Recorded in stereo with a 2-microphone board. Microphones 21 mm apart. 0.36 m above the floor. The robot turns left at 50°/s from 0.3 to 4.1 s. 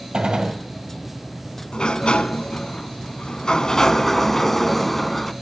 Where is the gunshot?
55° right (ahead or behind), 2 m; by 0.6 s 40° right (ahead or behind), 2 m.